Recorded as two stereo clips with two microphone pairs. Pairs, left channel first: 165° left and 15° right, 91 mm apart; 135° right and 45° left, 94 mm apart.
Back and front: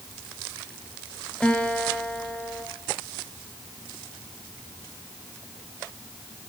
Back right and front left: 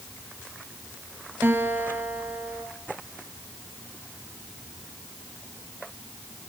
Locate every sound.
1.4 s a guitar: 95° left, 1.7 m